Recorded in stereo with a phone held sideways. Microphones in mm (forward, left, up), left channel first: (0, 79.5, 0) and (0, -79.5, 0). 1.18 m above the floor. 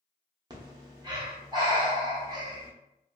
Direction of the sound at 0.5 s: 25° right (ahead or behind).